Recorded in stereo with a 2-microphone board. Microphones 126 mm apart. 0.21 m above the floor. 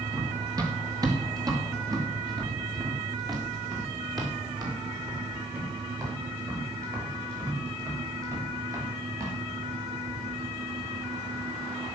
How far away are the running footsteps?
About 3 m.